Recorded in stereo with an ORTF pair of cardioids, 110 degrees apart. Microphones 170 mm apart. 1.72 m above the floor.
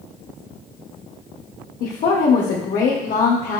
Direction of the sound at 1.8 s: 55° left.